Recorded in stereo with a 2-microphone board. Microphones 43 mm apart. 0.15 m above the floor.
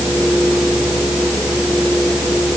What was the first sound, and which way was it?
Only background noise.